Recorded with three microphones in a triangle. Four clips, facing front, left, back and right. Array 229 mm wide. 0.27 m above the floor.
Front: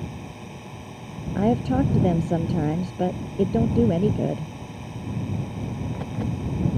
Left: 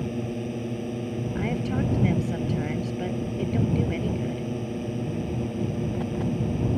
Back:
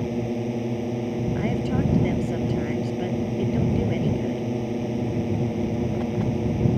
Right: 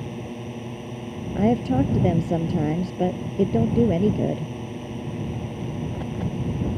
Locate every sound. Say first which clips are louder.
0.0 s a drone: left 3 dB, back 11 dB; 165° left
1.4 s a woman speaking: right 9 dB, front 8 dB; 60° right